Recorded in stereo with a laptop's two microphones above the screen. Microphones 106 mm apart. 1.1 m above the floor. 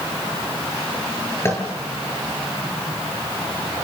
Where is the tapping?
25° left (ahead or behind), 8 m.